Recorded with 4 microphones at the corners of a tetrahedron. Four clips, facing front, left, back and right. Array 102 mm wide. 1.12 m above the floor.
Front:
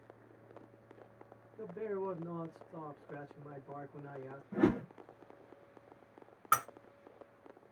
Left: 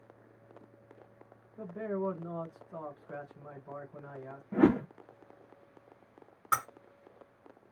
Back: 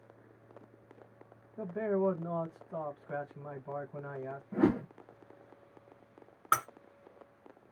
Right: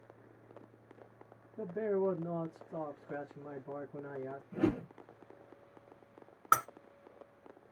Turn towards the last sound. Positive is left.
turn(degrees=-115)